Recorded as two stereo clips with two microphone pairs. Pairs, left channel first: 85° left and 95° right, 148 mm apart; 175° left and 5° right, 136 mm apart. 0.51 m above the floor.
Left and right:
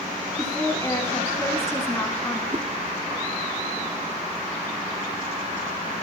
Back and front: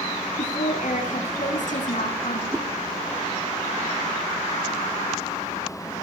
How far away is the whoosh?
About 1.1 m.